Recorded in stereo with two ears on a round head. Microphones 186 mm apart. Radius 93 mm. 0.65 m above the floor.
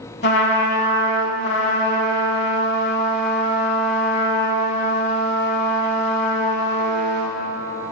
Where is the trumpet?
55° left (ahead or behind), 0.9 m.